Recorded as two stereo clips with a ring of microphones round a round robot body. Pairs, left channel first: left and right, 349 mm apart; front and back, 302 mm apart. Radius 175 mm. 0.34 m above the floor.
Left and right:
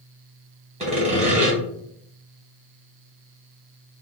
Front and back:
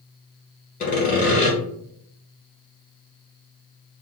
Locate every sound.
0.8 s sawing: 35° right, 1.4 m